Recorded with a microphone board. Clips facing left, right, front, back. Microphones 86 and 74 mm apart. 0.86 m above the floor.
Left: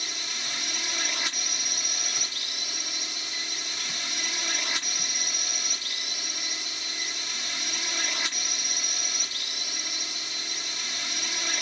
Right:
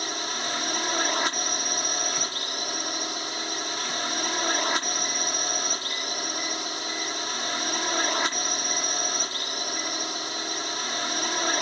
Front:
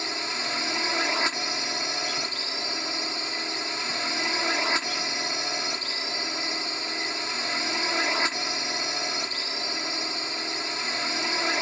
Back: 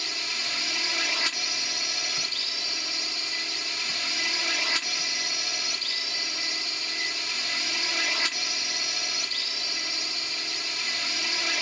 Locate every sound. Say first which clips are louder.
0.0 s a drone: right 8 dB, front 4 dB; 55° right